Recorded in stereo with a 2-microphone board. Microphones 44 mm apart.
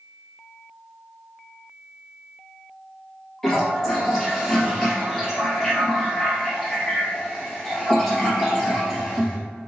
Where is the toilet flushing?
10° left (ahead or behind), 1.9 m.